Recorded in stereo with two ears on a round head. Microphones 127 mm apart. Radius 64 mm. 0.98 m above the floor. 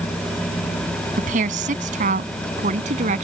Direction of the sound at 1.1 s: 60° right (ahead or behind).